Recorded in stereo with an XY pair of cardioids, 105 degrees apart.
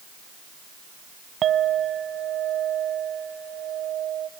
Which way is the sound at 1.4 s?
55° right.